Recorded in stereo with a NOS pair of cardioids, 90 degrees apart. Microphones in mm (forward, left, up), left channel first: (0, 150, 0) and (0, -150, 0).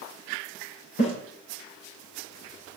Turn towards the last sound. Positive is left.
turn(degrees=45)